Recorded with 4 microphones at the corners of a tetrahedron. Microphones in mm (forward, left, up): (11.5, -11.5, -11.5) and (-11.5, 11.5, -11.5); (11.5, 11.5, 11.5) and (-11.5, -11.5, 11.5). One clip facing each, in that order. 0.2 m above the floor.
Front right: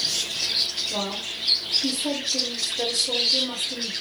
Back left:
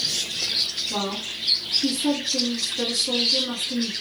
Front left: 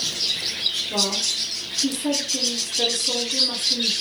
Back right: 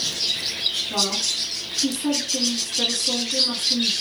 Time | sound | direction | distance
0.9 | a woman speaking | 165° left | 2.5 m